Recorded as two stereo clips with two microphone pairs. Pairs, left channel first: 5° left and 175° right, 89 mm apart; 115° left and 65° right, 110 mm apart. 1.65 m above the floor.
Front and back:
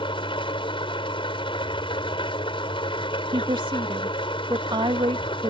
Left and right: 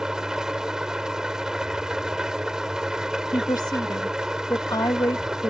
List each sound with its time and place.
0.0 s an engine running: 20° left
3.3 s a woman speaking: 170° left